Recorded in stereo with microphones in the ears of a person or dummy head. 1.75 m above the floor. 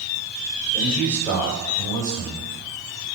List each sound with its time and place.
0.7 s a man speaking: 5° left (ahead or behind), 6 m; by 2.5 s 20° left (ahead or behind), 6 m